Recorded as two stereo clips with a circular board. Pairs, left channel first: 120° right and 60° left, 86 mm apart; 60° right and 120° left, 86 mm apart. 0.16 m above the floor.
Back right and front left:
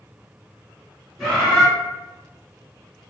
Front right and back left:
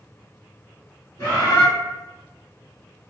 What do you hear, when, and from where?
1.2 s a bird: 35° right, 1.7 m